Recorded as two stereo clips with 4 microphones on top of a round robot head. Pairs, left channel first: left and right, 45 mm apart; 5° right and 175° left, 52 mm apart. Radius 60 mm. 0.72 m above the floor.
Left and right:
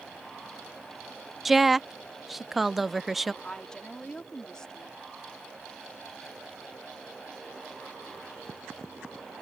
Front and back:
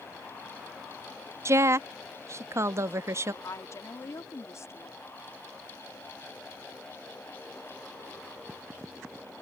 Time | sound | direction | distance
1.4 | a woman speaking | 175° right | ?
3.4 | a woman speaking | 15° left | ?